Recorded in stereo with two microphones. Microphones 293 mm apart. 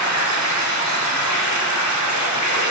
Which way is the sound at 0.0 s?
70° left (ahead or behind).